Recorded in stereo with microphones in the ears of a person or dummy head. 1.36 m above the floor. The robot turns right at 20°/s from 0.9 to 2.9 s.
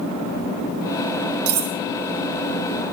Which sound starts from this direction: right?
Cutlery clinking, at 1.5 s.